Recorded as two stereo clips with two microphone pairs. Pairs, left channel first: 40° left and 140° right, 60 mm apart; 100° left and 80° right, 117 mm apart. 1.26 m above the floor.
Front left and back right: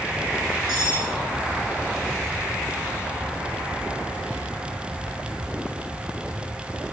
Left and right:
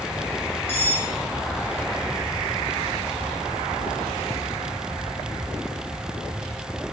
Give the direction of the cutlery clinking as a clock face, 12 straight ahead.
11 o'clock.